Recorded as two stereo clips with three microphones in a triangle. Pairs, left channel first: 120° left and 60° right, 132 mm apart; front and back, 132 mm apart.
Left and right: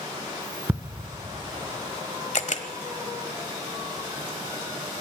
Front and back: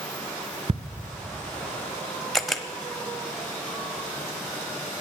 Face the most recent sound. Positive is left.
turn(degrees=90)